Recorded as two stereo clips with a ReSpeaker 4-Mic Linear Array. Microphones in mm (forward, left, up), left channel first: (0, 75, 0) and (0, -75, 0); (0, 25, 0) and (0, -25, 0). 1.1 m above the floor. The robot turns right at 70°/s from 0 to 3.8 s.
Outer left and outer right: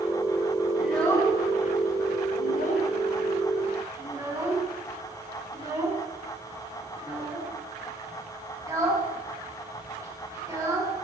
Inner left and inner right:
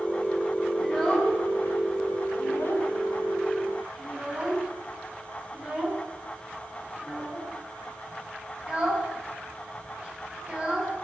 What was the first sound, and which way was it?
A child speaking, 10° right (ahead or behind).